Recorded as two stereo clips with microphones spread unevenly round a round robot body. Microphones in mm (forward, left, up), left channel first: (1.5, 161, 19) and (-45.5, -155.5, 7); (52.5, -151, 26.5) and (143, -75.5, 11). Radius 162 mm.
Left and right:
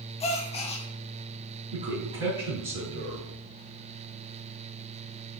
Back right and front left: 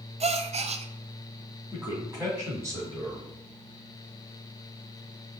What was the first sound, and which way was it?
A gasp, 10° left.